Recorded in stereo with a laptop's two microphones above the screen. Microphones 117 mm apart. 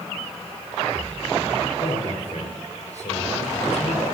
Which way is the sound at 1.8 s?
70° left (ahead or behind).